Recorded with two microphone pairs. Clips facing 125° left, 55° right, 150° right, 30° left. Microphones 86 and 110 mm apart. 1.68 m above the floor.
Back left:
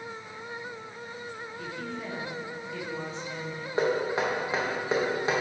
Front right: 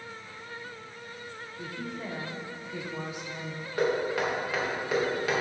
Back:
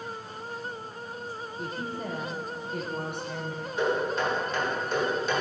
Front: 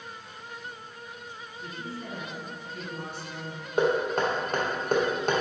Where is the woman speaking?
130° right, 1.0 m.